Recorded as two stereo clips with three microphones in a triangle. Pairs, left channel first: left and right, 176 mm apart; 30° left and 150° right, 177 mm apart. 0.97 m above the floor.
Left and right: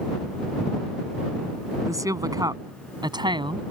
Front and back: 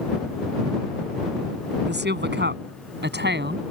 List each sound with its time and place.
1.9 s a woman speaking: 160° right; by 3.6 s 155° right